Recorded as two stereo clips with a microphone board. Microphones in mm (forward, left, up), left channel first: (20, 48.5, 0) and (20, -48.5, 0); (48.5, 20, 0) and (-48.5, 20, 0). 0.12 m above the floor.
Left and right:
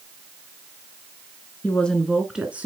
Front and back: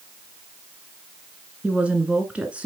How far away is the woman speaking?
About 1.1 m.